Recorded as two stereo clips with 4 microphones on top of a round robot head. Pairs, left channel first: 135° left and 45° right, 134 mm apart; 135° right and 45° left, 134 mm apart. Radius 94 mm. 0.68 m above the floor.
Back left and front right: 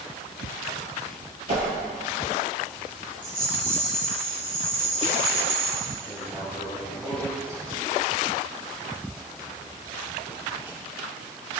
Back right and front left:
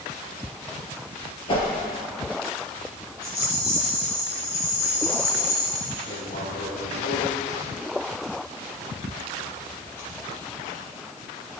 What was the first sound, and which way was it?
A whoosh, 80° right.